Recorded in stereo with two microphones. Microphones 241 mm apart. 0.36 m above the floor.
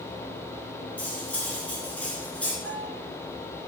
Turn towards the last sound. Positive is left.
turn(degrees=-5)  # may be behind; listen again after turning